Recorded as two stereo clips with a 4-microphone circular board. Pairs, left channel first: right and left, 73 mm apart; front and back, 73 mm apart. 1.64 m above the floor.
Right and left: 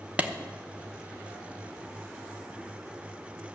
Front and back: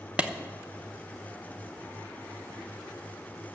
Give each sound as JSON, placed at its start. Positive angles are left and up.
{"t": 0.2, "sound": "a clap", "azimuth_deg": 135, "distance_m": 0.8}